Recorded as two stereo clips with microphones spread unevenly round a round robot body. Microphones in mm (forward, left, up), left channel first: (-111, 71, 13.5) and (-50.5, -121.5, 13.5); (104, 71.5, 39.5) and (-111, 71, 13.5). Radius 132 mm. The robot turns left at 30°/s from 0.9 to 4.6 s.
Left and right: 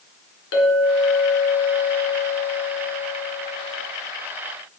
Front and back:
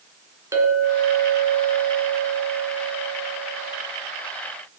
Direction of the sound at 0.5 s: 105° left.